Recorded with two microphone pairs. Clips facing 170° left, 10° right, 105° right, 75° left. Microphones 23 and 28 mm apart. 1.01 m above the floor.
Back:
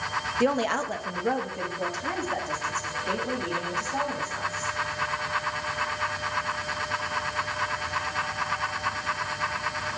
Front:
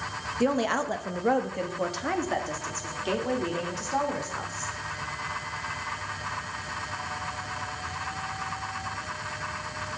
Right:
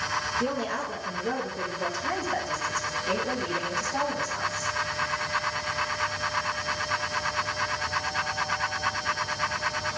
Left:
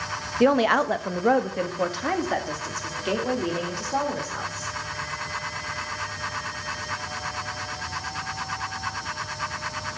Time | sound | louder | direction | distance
0.4 | a woman speaking | even, left 10 dB | 100° left | 0.7 m